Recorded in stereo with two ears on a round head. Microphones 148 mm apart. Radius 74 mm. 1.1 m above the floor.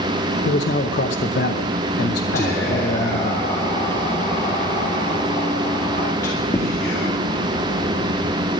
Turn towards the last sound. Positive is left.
turn(degrees=20)  # may be behind; listen again after turning